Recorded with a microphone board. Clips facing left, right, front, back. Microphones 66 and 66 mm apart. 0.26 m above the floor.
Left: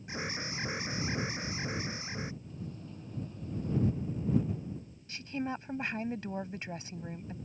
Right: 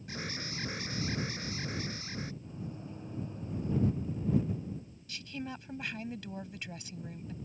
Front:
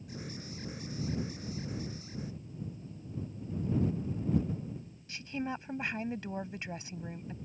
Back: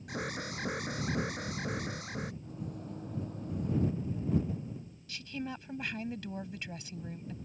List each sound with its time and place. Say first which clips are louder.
0.1 s an alarm: left 3 dB, back 7 dB; 160° left
2.4 s a microwave: right 1 dB, back 2 dB; 155° right
5.1 s a woman speaking: left 5 dB, front 3 dB; 50° left